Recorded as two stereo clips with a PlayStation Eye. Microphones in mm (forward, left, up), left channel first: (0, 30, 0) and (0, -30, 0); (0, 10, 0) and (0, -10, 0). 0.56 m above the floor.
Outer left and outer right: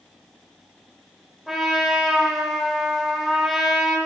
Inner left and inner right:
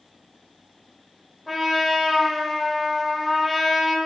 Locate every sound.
1.5 s a trumpet: 5° right (ahead or behind), 1.5 m